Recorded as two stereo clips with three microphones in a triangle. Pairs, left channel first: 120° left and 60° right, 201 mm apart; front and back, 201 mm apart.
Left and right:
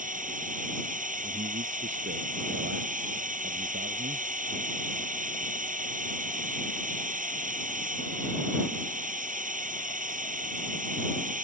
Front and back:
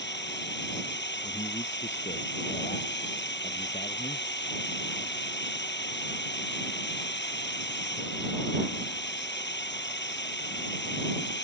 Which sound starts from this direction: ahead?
A drone, at 0.0 s.